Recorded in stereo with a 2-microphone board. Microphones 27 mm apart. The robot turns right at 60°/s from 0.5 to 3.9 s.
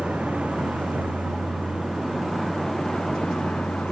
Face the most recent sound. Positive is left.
turn(degrees=80)